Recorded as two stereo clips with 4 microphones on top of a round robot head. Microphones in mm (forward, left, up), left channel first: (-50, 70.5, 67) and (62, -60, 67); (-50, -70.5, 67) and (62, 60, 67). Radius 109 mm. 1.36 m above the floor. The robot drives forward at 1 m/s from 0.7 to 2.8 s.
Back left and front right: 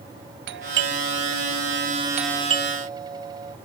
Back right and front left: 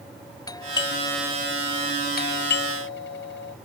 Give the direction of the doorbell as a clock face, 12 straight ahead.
2 o'clock.